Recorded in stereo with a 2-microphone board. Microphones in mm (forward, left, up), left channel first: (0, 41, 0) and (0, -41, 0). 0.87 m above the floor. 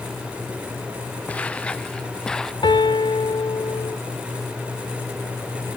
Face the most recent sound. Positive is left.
turn(degrees=80)